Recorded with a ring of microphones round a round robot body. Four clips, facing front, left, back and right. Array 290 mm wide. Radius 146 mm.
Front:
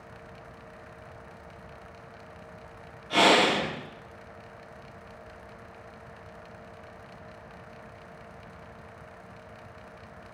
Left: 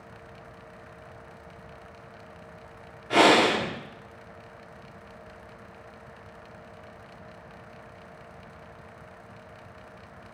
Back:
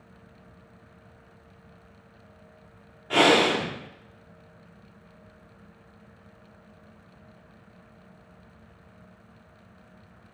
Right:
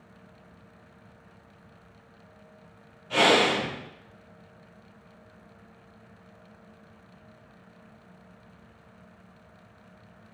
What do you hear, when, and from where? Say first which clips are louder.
3.1 s breathing: left 3 dB, back 1 dB; 120° left, 0.9 m